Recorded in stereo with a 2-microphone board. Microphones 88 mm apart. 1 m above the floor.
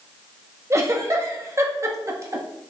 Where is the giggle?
35° right (ahead or behind), 1.5 m.